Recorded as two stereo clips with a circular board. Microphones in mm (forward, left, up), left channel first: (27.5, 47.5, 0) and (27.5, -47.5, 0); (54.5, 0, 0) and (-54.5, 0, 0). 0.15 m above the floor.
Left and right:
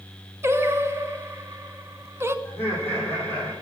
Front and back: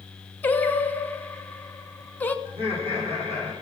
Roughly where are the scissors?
No scissors in this recording.